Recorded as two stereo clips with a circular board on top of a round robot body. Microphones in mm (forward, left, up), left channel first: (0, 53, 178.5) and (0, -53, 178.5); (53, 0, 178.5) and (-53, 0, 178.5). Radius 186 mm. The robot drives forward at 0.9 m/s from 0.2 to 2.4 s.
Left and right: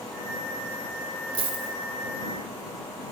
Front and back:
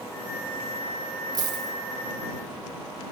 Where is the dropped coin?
125° right, 2.5 m; by 1.7 s 130° right, 2.5 m.